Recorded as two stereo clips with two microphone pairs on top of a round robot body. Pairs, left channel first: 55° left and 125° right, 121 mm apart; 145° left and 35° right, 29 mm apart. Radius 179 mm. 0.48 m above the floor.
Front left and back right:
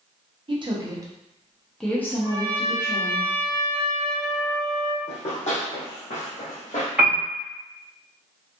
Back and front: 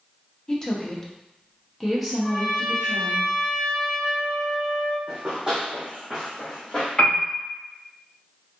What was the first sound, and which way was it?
A woman speaking, 165° right.